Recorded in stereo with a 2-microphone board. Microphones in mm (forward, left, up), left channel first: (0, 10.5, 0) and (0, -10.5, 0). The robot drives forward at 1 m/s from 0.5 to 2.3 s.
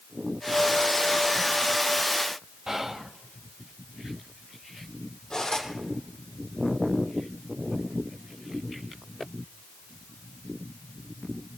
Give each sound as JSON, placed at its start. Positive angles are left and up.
{"t": 2.7, "sound": "whispering", "side_deg": -20, "distance_m": 1.0}
{"t": 5.3, "sound": "cutlery clinking", "side_deg": 25, "distance_m": 6.5}